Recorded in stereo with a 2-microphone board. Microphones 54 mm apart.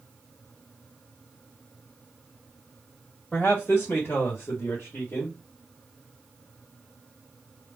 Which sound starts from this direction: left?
A man speaking, at 3.3 s.